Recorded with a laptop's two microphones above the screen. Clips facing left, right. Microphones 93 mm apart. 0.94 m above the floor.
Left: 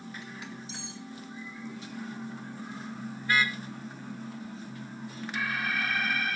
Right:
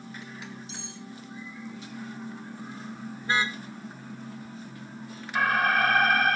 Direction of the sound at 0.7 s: 60° right (ahead or behind).